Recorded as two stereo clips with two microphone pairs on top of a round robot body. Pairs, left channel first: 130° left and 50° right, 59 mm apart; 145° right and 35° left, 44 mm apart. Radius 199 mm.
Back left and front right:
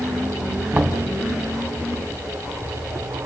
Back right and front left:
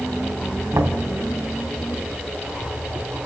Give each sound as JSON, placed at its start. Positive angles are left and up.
{"t": 0.7, "sound": "knocking", "azimuth_deg": 20, "distance_m": 3.0}